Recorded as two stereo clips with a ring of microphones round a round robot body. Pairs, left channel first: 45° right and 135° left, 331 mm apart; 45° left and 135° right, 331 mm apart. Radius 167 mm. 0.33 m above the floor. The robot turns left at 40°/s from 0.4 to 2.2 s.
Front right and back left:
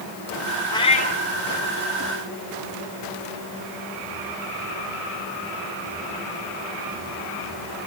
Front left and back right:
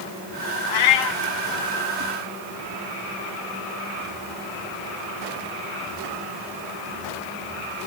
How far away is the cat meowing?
About 1.4 m.